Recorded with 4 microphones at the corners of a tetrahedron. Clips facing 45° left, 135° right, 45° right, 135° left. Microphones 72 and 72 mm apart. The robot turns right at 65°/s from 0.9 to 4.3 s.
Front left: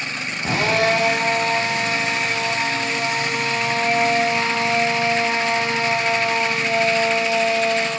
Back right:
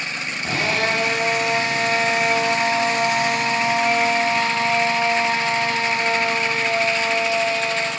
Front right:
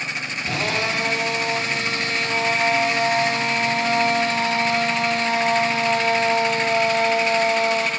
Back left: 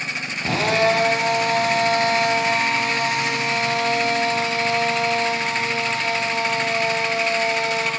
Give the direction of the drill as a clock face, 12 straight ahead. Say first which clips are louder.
Front left 4 dB, back left 6 dB; 8 o'clock.